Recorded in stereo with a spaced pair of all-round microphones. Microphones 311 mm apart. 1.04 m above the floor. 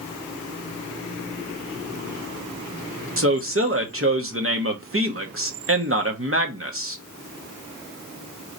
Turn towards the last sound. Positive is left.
turn(degrees=-45)  # may be behind; listen again after turning